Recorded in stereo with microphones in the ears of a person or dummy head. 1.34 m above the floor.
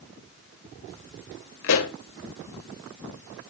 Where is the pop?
70° left (ahead or behind), 0.9 m.